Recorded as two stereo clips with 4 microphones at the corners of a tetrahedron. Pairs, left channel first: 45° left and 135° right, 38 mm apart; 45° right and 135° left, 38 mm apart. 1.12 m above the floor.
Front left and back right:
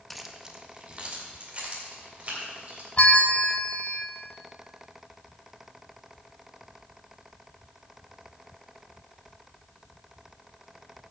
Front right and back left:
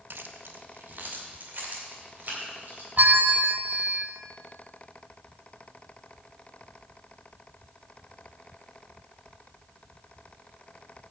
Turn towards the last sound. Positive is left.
turn(degrees=100)